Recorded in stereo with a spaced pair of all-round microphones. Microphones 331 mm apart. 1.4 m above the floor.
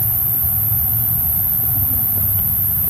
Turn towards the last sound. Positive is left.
turn(degrees=60)  # may be behind; listen again after turning